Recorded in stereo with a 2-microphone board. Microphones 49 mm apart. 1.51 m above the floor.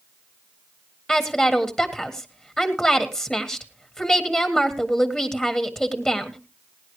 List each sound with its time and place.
1.1 s a woman speaking: 15° left (ahead or behind), 1.6 m